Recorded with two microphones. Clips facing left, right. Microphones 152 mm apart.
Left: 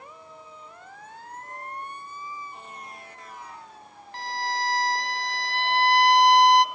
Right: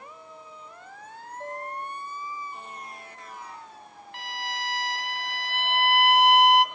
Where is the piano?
75° right (ahead or behind), 9.5 m.